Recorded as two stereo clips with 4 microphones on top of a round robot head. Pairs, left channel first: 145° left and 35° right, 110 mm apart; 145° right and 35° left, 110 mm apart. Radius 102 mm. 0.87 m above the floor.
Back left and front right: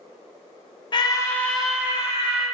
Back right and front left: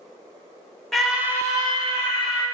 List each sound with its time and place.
0.9 s a scream: 130° left, 0.6 m; by 2.5 s 15° left, 0.9 m